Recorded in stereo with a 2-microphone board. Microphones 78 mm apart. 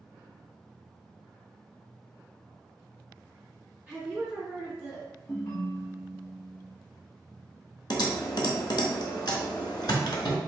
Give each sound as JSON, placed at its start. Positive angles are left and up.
{"t": 3.9, "sound": "a woman speaking", "side_deg": -15, "distance_m": 1.9}
{"t": 5.3, "sound": "a ringtone", "side_deg": 40, "distance_m": 1.1}
{"t": 7.9, "sound": "typing on a keyboard", "side_deg": 70, "distance_m": 0.6}